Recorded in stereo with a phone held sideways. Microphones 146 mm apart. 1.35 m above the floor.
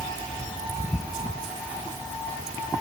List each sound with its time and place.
Only background noise.